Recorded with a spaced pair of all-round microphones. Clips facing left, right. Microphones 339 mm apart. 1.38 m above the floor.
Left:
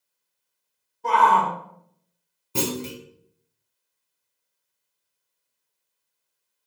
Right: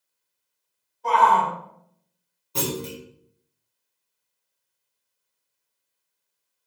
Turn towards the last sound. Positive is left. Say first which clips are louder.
# left 1 dB
turn(degrees=35)  # may be behind; listen again after turning